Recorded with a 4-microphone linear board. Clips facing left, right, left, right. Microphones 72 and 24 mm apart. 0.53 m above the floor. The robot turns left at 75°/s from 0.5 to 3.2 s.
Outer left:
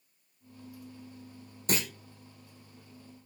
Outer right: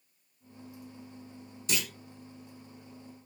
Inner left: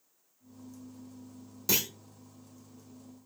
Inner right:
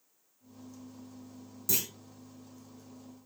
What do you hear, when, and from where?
1.7 s a clunk: 45° left (ahead or behind), 1.1 m; by 1.9 s 30° left (ahead or behind), 1.1 m